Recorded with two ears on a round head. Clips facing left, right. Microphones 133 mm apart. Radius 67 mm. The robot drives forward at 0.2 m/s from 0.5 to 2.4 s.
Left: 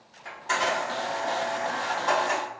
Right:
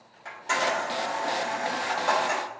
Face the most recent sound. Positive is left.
turn(degrees=-15)  # may be behind; listen again after turning